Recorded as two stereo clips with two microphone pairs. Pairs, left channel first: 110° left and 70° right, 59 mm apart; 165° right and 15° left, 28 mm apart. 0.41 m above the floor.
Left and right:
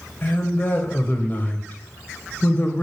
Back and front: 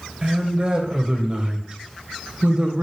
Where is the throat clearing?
No throat clearing in this recording.